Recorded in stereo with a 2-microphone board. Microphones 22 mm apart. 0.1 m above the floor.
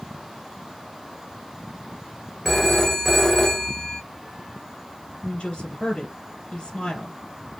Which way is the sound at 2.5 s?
10° left (ahead or behind).